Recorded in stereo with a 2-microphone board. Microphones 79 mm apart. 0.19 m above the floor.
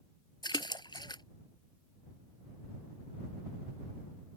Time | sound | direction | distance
0.4 | a splash | 70° left (ahead or behind) | ?